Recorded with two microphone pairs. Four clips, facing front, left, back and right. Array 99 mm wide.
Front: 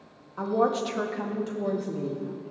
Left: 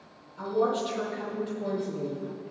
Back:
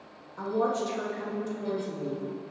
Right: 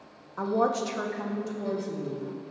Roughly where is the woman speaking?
Ahead right.